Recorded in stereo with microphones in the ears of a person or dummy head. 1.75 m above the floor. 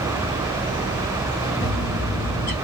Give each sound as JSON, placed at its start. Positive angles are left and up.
{"t": 1.6, "sound": "a bird", "side_deg": 20, "distance_m": 1.9}